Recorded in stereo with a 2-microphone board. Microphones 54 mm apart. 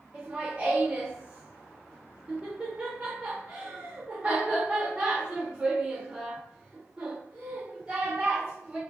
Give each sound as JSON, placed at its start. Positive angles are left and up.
{"t": 0.1, "sound": "laughter", "side_deg": -20, "distance_m": 0.9}